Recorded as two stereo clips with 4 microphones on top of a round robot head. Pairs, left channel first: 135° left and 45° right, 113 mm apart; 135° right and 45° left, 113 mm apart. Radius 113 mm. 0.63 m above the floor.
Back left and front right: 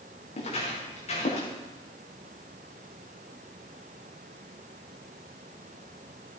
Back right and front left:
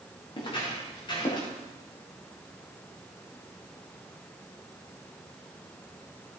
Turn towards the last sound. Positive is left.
turn(degrees=170)